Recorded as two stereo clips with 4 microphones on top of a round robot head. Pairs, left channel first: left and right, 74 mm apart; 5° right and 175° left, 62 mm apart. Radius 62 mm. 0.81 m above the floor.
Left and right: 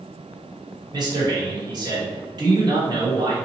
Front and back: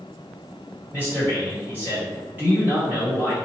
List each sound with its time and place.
0.9 s a man speaking: 115° right, 1.7 m